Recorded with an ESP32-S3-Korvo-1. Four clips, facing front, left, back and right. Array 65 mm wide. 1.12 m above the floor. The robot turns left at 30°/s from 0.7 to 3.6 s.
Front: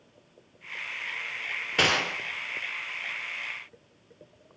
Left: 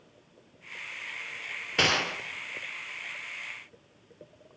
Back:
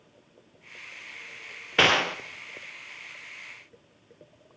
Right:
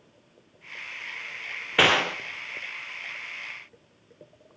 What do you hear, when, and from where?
1.8 s a gunshot: 125° right, 0.6 m; by 2.2 s 135° right, 0.6 m